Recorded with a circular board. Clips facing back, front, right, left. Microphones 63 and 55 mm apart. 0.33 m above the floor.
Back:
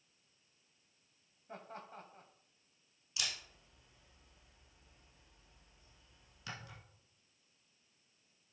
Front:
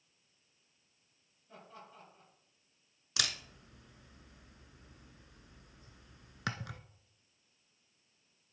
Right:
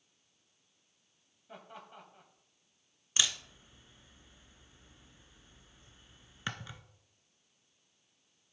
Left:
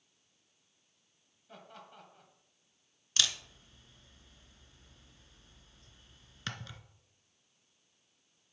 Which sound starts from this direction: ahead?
A camera shutter, at 3.2 s.